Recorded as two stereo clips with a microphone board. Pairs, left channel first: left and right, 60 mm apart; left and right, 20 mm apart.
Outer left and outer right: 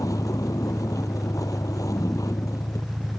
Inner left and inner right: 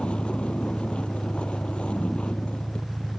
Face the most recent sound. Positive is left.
turn(degrees=70)  # may be behind; listen again after turning